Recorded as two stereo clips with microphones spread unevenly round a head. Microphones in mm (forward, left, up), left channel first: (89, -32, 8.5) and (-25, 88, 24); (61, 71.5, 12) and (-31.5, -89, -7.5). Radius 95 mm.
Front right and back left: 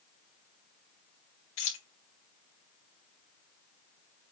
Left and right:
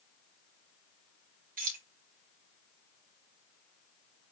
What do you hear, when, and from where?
1.6 s keys jangling: 75° right, 3 m